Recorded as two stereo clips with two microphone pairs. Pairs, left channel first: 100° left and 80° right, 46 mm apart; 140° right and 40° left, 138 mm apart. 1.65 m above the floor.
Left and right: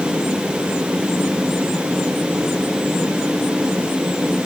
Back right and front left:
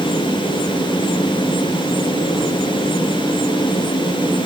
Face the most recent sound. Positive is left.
No sound to turn to.